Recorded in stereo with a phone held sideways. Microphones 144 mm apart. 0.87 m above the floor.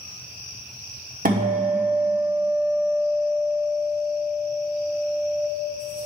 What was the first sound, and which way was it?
A guitar, 75° right (ahead or behind).